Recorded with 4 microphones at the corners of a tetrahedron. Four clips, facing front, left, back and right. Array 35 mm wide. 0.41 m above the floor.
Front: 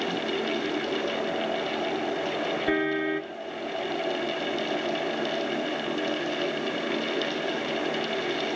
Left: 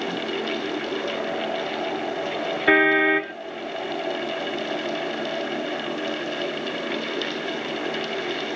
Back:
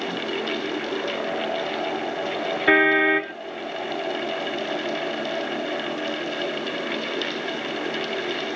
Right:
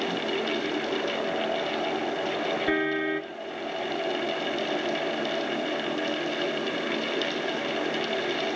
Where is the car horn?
135° left.